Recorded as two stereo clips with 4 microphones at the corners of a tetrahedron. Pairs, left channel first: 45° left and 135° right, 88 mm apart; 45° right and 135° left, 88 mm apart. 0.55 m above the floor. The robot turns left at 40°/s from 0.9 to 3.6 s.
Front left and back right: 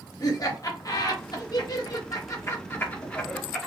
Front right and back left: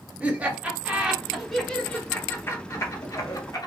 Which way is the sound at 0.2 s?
65° left.